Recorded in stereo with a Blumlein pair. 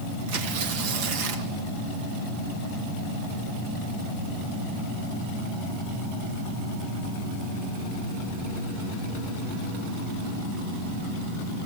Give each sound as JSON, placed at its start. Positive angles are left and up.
{"t": 0.3, "sound": "tearing paper", "azimuth_deg": -50, "distance_m": 1.5}